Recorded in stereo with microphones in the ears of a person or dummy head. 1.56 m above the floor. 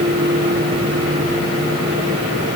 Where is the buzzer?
No buzzer in this recording.